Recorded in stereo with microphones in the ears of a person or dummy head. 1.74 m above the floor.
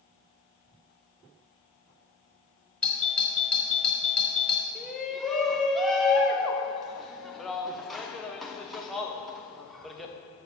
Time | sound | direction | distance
2.8 | a doorbell | 5° left (ahead or behind) | 1.4 m
4.8 | a shout | centre (ahead or behind) | 1.0 m